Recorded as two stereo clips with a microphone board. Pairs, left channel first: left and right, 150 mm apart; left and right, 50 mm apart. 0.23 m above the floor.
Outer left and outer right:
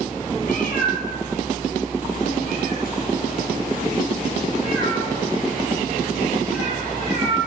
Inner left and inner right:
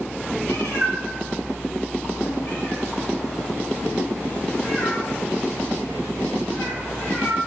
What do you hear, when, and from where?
0.4 s a cat meowing: 75° left (ahead or behind), 1.4 m; by 7.4 s 65° left (ahead or behind), 5 m